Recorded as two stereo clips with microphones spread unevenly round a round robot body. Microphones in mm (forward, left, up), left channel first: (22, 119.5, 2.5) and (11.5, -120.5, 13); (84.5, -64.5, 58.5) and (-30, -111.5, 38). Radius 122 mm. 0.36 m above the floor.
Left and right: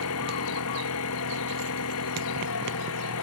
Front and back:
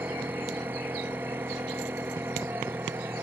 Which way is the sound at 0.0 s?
120° left.